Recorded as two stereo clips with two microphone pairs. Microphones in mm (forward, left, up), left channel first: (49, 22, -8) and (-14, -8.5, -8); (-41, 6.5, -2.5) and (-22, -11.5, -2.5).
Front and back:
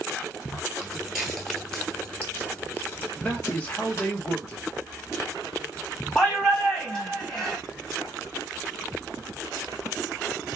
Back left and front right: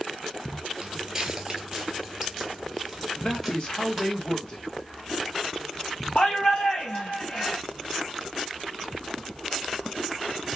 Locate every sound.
0.8 s footsteps: 85° right, 1.2 m; by 4.1 s 70° left, 1.7 m
3.2 s a man speaking: 90° left, 0.9 m
6.2 s a shout: 100° left, 2 m